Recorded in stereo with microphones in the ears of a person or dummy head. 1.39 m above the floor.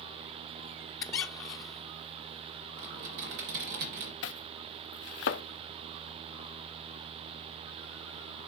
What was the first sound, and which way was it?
A squeak, 20° left (ahead or behind).